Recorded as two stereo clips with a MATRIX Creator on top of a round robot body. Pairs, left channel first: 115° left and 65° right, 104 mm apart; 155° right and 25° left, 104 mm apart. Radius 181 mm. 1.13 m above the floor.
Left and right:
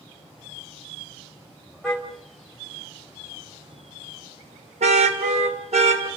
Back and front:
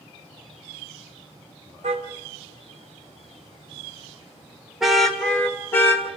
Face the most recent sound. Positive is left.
turn(degrees=-90)